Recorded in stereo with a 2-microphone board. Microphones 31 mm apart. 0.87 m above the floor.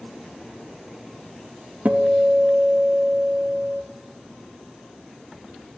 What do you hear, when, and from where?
1.9 s a guitar: 55° right (ahead or behind), 0.7 m